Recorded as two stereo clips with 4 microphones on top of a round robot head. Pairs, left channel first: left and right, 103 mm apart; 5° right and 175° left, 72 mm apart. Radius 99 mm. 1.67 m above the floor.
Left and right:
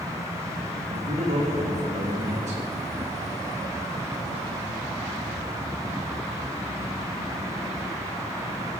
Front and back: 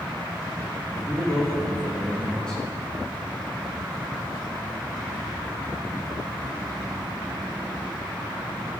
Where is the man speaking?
90° right, 3.5 m.